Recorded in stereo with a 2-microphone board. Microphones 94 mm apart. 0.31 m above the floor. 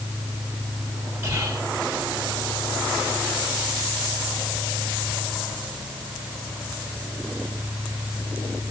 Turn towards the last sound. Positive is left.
turn(degrees=-25)  # may be behind; listen again after turning